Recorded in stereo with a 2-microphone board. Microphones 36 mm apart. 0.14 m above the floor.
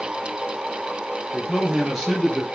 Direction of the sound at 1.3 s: 10° right (ahead or behind).